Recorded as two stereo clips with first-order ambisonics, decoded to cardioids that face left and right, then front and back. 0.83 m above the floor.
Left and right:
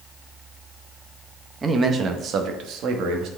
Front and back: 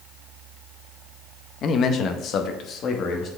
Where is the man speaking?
25° right, 0.6 m; by 3.3 s 55° right, 1.3 m.